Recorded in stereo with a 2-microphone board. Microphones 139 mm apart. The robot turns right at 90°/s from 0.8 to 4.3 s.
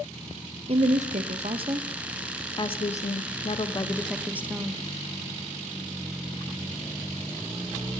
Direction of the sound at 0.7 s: 120° right.